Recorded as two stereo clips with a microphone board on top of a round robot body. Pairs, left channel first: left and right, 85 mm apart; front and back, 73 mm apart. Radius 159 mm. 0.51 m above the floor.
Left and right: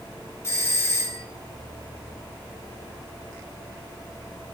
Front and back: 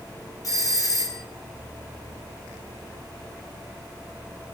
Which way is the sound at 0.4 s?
35° left.